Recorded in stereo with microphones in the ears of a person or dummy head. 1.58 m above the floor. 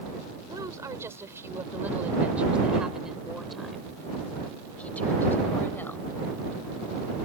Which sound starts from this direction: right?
A woman speaking, at 0.5 s.